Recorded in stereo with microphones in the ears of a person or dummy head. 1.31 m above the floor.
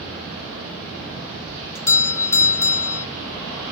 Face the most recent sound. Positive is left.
turn(degrees=15)  # may be behind; listen again after turning